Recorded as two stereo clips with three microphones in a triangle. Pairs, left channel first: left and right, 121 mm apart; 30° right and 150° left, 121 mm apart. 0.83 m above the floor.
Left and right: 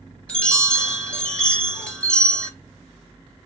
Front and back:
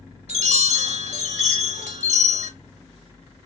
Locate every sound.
0.3 s a chime: 170° left, 1.4 m